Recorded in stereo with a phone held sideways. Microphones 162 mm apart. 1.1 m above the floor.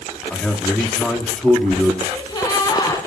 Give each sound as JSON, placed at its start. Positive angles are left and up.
{"t": 0.3, "sound": "a man speaking", "side_deg": 5, "distance_m": 2.5}
{"t": 2.0, "sound": "a gasp", "side_deg": 25, "distance_m": 3.0}